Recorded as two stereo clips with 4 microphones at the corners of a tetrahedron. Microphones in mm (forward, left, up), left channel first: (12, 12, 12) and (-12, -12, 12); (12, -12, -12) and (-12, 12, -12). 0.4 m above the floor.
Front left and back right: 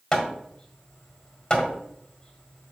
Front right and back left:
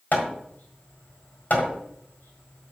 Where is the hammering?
25° right, 1.6 m.